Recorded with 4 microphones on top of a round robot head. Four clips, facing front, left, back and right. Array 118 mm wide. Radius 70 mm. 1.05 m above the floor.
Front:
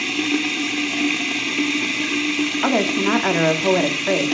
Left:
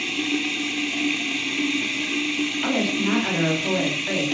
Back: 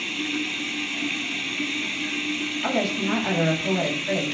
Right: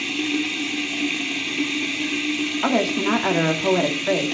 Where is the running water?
5° right, 1.3 m.